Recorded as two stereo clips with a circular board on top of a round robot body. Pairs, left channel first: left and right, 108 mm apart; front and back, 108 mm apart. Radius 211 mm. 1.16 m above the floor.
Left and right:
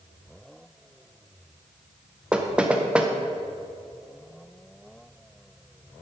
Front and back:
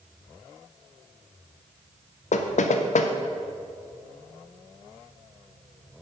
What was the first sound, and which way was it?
Knocking, 10° right.